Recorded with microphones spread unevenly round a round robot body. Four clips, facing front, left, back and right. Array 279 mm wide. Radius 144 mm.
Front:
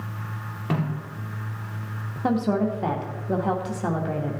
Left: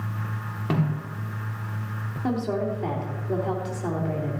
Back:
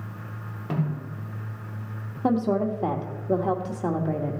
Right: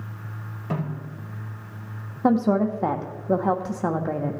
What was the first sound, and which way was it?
A snare drum, 50° left.